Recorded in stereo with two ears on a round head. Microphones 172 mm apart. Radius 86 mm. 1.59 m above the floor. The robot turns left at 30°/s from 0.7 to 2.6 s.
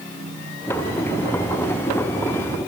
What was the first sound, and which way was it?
Only background noise.